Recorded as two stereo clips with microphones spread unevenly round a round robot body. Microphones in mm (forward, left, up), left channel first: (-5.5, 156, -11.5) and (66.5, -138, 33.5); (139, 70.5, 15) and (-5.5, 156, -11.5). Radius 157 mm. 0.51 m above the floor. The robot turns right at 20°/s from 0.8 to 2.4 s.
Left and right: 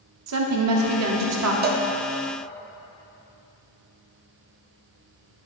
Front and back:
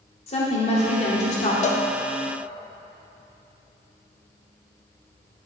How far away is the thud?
No thud in this recording.